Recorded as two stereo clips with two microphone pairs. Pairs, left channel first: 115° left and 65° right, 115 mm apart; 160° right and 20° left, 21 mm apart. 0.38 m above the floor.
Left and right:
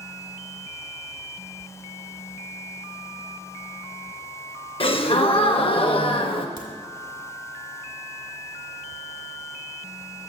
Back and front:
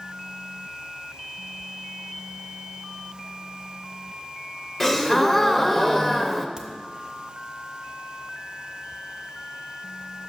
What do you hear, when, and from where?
4.8 s a gasp: 125° left, 0.5 m
6.6 s a crack: 30° right, 0.9 m